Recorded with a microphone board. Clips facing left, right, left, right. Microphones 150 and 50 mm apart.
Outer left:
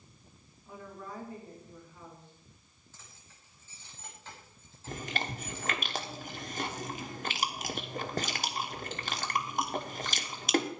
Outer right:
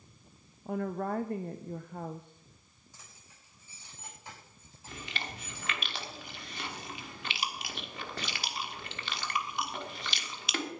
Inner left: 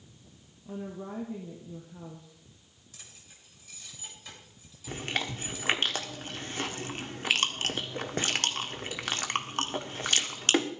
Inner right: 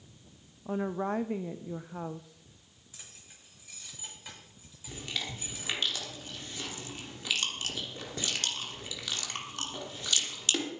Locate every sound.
0.7 s a woman speaking: 60° right (ahead or behind), 0.6 m
2.9 s keys jangling: 15° right (ahead or behind), 6 m
4.9 s chewing: 45° left (ahead or behind), 1.4 m